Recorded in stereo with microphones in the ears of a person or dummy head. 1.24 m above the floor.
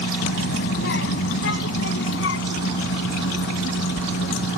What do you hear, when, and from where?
0.2 s a child speaking: 75° left (ahead or behind)